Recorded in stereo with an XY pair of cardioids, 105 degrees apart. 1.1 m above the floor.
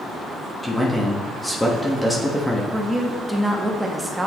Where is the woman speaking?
10° right, 1.2 m.